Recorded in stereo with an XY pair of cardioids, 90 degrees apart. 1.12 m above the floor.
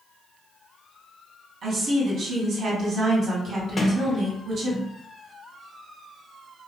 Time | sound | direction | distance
1.6 | a woman speaking | 60° right | 1.6 m
3.8 | a sliding door | 40° left | 0.8 m